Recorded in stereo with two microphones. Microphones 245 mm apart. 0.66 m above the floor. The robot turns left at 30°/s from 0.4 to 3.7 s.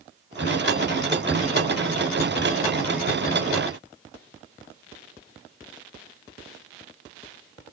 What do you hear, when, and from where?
Only background noise.